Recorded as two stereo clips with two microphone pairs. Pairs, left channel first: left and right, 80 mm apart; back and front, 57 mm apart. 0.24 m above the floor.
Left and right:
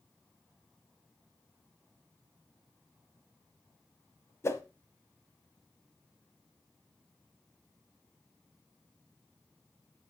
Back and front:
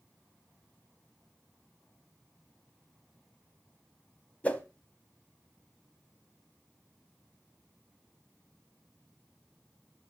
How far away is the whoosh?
About 0.8 m.